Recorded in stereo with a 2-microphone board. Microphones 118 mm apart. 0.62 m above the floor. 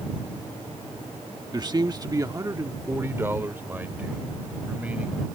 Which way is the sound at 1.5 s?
35° right (ahead or behind).